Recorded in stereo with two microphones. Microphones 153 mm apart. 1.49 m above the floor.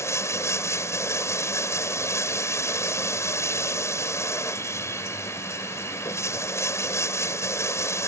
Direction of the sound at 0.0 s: 15° left (ahead or behind).